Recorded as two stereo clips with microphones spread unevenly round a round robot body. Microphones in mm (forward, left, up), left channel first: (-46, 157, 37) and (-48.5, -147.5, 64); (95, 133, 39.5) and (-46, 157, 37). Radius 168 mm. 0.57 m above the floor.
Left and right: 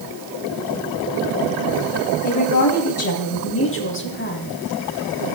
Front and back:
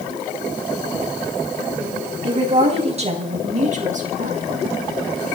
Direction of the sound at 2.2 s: 120° left.